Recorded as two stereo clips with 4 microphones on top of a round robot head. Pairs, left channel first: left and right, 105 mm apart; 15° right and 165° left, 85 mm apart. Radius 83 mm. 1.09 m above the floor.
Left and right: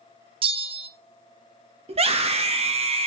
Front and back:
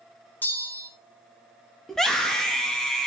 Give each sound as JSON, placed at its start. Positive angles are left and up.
{"t": 0.4, "sound": "a bell", "azimuth_deg": -85, "distance_m": 0.5}
{"t": 1.9, "sound": "a scream", "azimuth_deg": -100, "distance_m": 2.0}